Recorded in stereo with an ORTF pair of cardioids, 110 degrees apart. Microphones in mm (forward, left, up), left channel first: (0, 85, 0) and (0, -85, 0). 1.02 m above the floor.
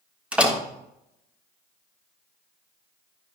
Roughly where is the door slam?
Ahead.